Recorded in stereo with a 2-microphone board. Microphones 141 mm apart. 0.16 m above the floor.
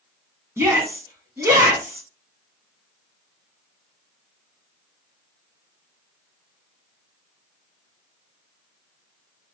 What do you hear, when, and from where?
0.6 s a shout: 20° right (ahead or behind), 1.2 m